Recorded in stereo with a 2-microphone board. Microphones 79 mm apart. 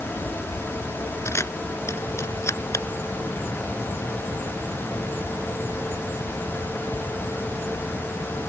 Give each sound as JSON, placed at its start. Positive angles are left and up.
{"t": 1.2, "sound": "a camera shutter", "side_deg": 35}